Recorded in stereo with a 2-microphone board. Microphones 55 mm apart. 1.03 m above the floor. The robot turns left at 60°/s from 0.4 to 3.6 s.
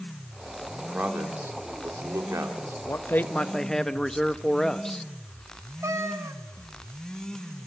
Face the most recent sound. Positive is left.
turn(degrees=-70)  # may be behind; listen again after turning